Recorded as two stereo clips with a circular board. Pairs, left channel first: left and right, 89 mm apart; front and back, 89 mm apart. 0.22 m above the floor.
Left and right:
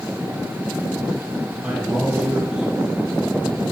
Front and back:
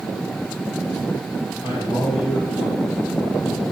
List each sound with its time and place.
1.6 s a man speaking: 10° right, 6.5 m